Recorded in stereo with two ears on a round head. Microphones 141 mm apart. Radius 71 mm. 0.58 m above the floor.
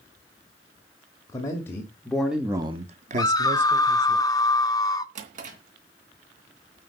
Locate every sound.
1.3 s a man speaking: 20° left (ahead or behind), 2.5 m; by 4.2 s 45° right (ahead or behind), 2.5 m
3.2 s a scream: 25° left (ahead or behind), 0.8 m
5.2 s a drawer: 50° right (ahead or behind), 2.5 m